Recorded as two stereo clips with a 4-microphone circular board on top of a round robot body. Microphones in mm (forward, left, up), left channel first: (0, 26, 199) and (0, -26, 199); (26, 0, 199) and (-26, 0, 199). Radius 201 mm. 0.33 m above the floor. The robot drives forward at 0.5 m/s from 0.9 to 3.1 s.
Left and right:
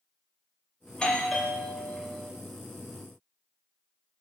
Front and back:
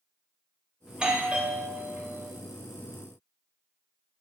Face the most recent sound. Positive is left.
turn(degrees=165)